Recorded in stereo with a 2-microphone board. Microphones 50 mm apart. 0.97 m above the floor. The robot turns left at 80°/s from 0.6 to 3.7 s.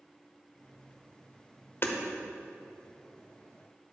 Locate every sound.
1.8 s hammering: 50° left (ahead or behind), 1.1 m; by 2.0 s 40° left (ahead or behind), 1.1 m